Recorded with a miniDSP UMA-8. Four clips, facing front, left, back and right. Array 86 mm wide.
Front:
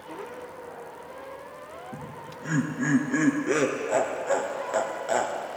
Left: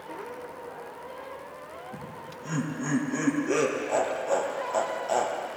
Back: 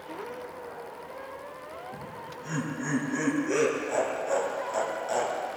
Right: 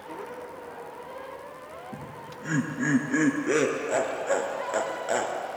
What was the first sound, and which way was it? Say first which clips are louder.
Laughter: even, front 1 dB; 55° right.